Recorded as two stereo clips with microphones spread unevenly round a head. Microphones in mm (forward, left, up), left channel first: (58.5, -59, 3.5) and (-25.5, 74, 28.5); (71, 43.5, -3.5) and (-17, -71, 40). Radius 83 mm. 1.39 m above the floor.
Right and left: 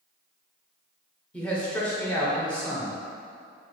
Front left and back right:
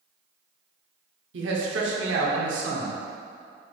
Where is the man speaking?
140° right, 0.7 m.